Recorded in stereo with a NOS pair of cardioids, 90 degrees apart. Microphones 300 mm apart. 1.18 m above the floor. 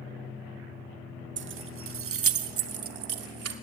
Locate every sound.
1.4 s keys jangling: 40° right, 0.9 m; by 3.5 s 60° right, 2.5 m